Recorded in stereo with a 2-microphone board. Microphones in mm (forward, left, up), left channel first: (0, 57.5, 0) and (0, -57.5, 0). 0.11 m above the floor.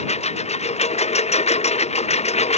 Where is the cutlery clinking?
No cutlery clinking in this recording.